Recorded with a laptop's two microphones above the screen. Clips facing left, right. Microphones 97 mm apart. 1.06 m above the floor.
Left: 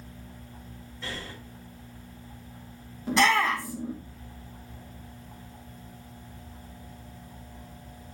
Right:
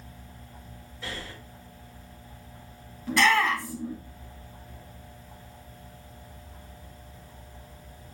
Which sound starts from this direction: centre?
Breathing, at 1.0 s.